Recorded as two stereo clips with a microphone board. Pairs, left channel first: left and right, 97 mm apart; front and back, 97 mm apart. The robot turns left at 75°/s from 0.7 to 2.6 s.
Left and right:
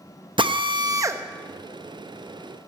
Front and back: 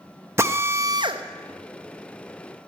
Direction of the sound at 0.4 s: 120° right.